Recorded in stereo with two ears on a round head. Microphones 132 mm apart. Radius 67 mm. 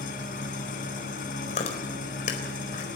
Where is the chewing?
50° left (ahead or behind), 4.5 m.